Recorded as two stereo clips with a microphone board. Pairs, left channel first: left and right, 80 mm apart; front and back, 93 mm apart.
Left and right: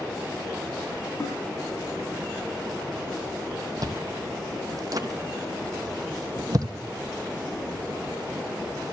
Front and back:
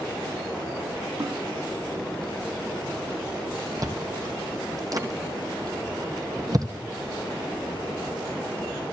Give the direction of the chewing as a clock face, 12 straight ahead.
4 o'clock.